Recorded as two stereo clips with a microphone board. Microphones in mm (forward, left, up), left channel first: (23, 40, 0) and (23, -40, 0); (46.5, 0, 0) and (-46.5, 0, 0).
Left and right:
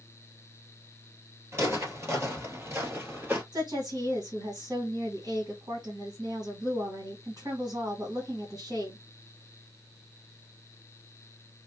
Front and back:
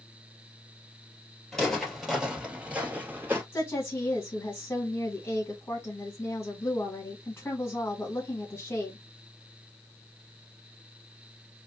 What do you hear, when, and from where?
1.5 s footsteps: 80° right, 1.8 m; by 3.4 s 135° right, 1.9 m
3.5 s a woman speaking: 50° right, 2 m